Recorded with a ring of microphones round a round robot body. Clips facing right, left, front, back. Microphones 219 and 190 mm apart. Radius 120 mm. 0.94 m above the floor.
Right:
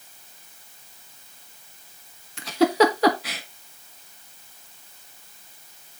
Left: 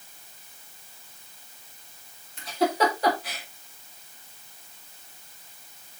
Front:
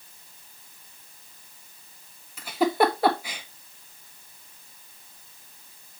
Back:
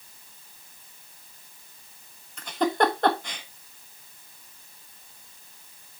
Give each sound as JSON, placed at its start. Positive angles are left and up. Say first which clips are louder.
{"t": 2.4, "sound": "a giggle", "louder": "right 6 dB, front 2 dB", "azimuth_deg": -85, "distance_m": 1.4}